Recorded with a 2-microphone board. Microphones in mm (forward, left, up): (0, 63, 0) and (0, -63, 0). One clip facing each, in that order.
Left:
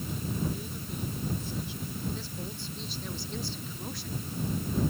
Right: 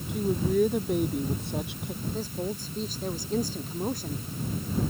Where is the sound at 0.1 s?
65° right (ahead or behind).